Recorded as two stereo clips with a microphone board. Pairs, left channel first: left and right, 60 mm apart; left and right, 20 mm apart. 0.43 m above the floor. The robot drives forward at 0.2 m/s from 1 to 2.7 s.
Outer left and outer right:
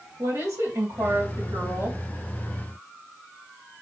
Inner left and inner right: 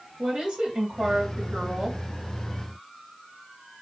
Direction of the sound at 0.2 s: 60° right (ahead or behind).